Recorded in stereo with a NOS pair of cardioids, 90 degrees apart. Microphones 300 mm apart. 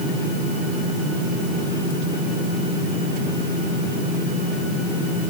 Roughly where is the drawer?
No drawer in this recording.